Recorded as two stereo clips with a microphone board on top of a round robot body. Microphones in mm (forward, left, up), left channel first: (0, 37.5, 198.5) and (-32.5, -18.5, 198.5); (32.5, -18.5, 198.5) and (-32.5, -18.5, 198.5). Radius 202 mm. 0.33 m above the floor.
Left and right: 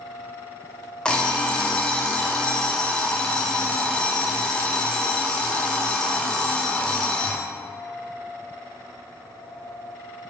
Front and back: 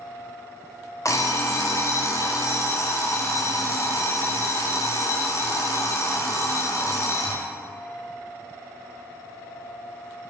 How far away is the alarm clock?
About 0.7 m.